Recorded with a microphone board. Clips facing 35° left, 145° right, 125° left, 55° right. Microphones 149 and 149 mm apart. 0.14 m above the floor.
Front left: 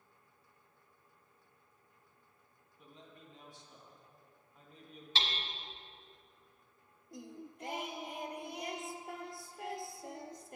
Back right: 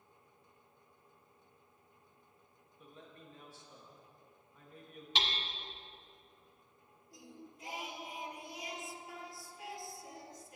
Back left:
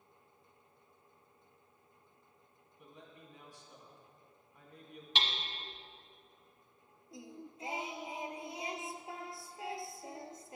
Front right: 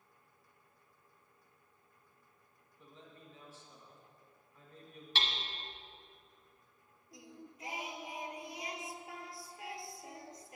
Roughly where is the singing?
Ahead left.